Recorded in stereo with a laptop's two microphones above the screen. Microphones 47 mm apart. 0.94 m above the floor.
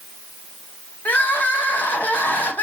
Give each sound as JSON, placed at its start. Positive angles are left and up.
{"t": 1.1, "sound": "crying", "side_deg": 40, "distance_m": 1.0}